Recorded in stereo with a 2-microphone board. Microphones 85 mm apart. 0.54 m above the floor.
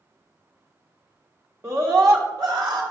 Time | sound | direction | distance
1.6 | a scream | 35° right (ahead or behind) | 1.4 m